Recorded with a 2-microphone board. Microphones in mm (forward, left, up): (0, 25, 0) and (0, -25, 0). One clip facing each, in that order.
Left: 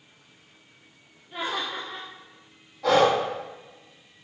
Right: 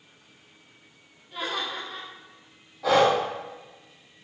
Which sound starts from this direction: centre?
Breathing, at 2.8 s.